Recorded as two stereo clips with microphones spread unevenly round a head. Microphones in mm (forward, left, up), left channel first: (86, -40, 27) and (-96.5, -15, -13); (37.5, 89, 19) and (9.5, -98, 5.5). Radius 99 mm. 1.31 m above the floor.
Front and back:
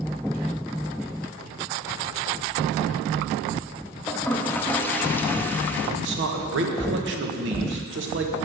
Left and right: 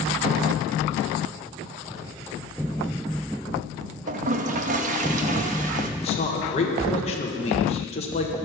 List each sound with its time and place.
4.1 s a toilet flushing: 65° right, 0.7 m
6.0 s a man speaking: 145° left, 1.4 m